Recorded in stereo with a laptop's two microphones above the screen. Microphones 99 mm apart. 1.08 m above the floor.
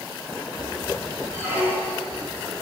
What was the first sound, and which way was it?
A squeak, 10° right (ahead or behind).